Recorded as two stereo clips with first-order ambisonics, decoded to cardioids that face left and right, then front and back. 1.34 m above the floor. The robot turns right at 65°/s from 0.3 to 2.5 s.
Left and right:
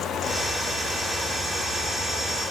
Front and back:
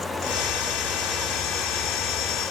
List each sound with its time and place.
Only background noise.